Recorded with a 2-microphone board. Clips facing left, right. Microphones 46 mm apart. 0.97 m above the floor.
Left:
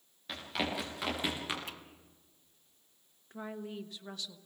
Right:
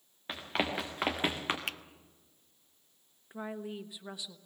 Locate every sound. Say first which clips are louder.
0.3 s running footsteps: right 2 dB; 30° right (ahead or behind), 5.5 m; by 1.6 s 40° right (ahead or behind), 3.5 m
1.7 s a finger snap: right 7 dB; 70° right (ahead or behind), 0.5 m
3.3 s a woman speaking: right 2 dB; 15° right (ahead or behind), 1.2 m